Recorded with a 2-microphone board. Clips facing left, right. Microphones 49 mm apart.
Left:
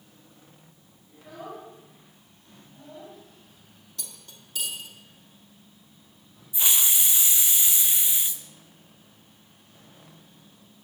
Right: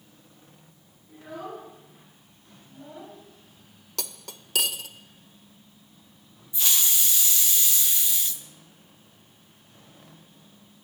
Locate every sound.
1.1 s a child speaking: 10° right (ahead or behind), 5.5 m; by 3.2 s centre (ahead or behind), 2.5 m
4.0 s cutlery clinking: 80° right, 0.7 m
6.5 s a hiss: 20° left (ahead or behind), 0.9 m